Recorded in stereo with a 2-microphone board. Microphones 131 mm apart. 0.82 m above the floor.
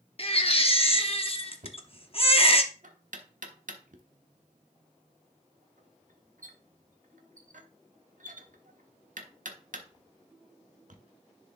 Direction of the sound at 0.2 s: 45° left (ahead or behind).